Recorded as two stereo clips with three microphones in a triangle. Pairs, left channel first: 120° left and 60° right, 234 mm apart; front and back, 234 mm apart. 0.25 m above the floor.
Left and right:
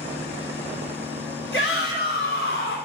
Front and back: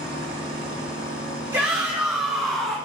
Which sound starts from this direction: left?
A shout, at 1.5 s.